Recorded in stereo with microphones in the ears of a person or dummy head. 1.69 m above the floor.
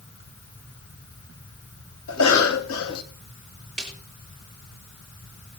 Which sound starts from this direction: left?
A cough, at 2.1 s.